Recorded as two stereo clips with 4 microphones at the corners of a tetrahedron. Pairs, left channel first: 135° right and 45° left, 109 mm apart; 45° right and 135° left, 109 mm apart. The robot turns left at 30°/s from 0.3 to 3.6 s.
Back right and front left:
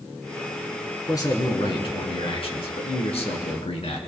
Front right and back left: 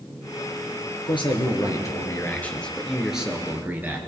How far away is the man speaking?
About 2.5 m.